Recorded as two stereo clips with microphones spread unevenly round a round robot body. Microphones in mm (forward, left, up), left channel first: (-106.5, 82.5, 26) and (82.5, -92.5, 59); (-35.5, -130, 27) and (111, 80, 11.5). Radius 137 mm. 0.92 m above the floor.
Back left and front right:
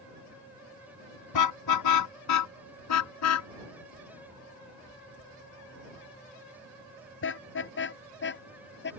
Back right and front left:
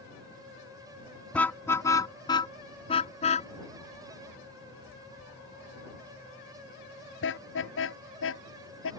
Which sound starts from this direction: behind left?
A car horn, at 1.3 s.